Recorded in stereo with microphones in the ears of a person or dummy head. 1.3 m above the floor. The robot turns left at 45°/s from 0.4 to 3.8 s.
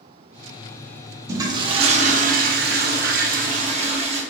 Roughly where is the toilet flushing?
Ahead.